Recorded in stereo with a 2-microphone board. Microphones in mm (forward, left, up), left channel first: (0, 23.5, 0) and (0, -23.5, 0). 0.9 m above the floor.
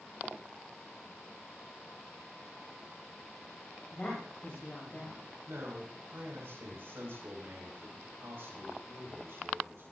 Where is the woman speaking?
30° left (ahead or behind), 5 m.